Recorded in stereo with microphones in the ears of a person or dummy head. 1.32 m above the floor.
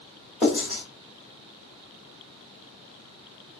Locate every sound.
0.4 s writing: centre (ahead or behind), 1.3 m